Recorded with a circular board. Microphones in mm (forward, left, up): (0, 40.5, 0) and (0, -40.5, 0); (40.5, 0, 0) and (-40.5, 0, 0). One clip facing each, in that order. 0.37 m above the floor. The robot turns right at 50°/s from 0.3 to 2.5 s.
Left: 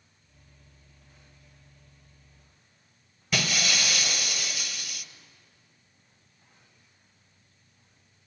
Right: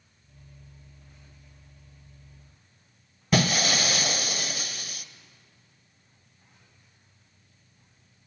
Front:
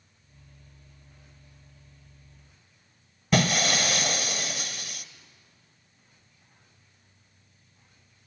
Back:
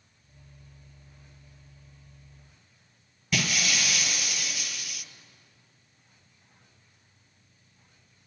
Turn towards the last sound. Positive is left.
turn(degrees=-45)